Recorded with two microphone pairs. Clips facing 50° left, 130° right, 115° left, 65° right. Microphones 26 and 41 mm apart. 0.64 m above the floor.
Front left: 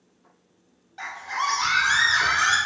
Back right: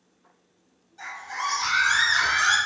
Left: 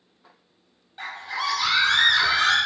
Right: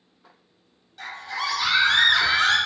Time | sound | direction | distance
1.0 | a scream | 55° left | 0.7 m